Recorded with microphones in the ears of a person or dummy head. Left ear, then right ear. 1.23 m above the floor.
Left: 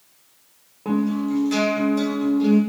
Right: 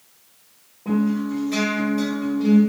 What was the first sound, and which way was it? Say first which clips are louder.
A guitar: left 1 dB; 50° left (ahead or behind).